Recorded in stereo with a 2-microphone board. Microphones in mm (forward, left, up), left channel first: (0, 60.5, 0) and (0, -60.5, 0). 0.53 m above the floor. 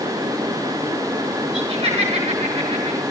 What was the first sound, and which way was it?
Laughter, 50° right (ahead or behind).